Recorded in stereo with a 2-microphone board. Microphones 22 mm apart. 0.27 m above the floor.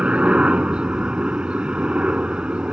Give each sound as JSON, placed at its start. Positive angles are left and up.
{"t": 0.0, "sound": "a helicopter", "side_deg": -55}